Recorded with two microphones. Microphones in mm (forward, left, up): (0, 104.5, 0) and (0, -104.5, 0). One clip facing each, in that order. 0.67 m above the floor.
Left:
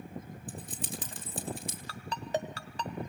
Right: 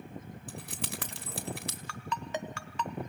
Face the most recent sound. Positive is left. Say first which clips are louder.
# left 3 dB
turn(degrees=35)  # may be behind; listen again after turning